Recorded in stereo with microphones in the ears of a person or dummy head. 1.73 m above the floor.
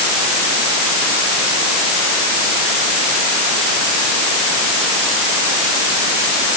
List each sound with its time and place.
Only background noise.